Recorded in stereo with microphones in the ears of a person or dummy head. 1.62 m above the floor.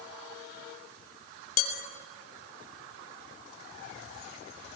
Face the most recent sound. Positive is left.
turn(degrees=50)  # may be behind; listen again after turning